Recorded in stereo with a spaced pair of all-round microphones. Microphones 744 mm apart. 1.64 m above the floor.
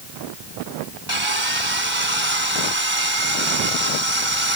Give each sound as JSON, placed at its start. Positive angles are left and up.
{"t": 1.1, "sound": "sawing", "side_deg": -40}